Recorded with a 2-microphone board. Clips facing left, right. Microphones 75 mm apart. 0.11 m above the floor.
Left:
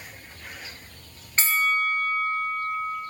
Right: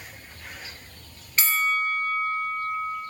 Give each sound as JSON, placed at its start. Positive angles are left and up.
{"t": 1.4, "sound": "a bell", "side_deg": 35, "distance_m": 1.3}